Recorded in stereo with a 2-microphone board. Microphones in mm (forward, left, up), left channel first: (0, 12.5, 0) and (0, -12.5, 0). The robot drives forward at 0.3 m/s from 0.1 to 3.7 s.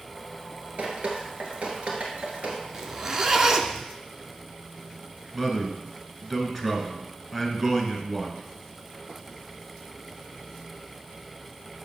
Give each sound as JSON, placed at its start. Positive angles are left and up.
{"t": 0.8, "sound": "dripping", "side_deg": -55, "distance_m": 1.4}
{"t": 2.7, "sound": "a zipper", "side_deg": -20, "distance_m": 0.6}
{"t": 5.3, "sound": "a man speaking", "side_deg": -10, "distance_m": 1.2}